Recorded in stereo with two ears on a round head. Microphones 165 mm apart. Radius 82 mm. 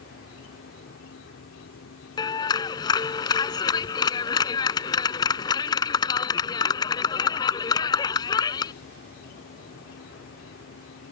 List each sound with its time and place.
0.0 s an insect: 80° left
2.2 s a clap: 20° left (ahead or behind)